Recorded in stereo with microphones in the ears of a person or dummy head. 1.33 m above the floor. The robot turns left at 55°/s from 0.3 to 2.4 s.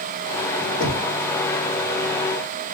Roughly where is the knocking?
Left.